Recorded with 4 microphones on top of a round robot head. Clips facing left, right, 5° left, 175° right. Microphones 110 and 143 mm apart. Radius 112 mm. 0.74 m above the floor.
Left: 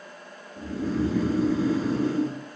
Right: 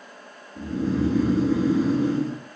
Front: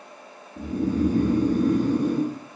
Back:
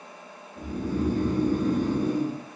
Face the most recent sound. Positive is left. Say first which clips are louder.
# right 3 dB, front 5 dB
turn(degrees=-15)